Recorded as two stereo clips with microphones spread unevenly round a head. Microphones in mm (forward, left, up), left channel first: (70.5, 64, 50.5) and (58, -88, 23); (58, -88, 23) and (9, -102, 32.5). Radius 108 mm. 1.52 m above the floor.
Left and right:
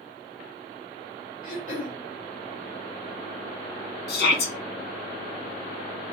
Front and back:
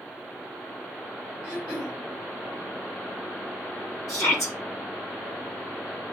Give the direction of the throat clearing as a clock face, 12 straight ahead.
7 o'clock.